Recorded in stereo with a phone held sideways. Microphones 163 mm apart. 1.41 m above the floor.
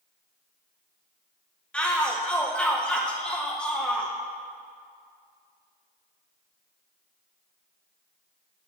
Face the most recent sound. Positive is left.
turn(degrees=5)  # may be behind; listen again after turning